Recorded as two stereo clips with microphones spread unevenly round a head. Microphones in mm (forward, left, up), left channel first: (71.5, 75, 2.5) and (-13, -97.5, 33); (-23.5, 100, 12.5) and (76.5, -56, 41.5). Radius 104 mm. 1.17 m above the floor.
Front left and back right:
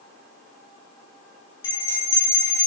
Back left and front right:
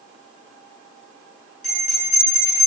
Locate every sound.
1.6 s a bell: 70° left, 1.9 m